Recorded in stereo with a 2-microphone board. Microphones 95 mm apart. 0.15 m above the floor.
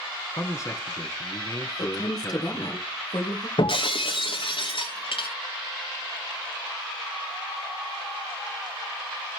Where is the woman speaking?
45° left (ahead or behind), 2.5 m.